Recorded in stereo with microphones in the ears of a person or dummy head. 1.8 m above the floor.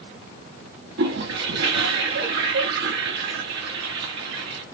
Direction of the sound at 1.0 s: 70° right (ahead or behind).